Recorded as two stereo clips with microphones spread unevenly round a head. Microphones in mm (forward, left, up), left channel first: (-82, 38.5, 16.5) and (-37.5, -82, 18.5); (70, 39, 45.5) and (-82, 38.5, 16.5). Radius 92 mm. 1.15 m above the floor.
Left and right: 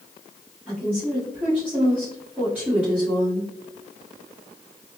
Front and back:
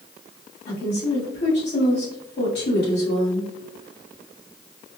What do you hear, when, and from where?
0.7 s a woman speaking: 15° left, 2.0 m